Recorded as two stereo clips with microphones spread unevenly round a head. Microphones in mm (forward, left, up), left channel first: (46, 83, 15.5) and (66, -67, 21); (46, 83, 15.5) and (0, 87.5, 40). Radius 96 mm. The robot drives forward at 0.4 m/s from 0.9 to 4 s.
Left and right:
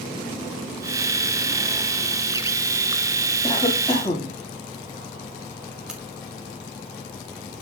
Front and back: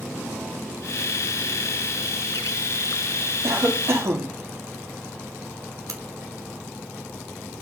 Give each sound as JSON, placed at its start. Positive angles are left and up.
{"t": 3.4, "sound": "a cough", "azimuth_deg": 170, "distance_m": 3.0}
{"t": 5.9, "sound": "a crack", "azimuth_deg": -170, "distance_m": 1.4}